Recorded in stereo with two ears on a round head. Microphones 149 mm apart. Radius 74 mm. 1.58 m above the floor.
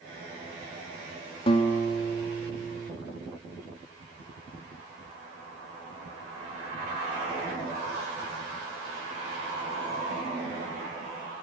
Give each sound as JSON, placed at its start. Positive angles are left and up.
{"t": 1.5, "sound": "a guitar", "side_deg": 35, "distance_m": 2.5}